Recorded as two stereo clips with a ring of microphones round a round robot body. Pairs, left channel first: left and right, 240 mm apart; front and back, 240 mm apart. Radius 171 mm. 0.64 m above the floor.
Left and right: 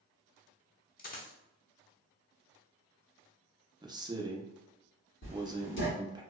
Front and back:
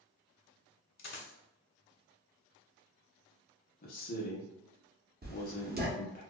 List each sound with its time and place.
1.0 s a dropped coin: 35° left, 0.9 m
3.8 s a man speaking: 25° right, 0.6 m
5.2 s writing: 135° left, 0.9 m